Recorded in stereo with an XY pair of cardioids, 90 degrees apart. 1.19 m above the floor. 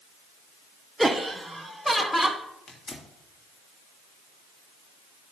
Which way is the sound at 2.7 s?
45° left.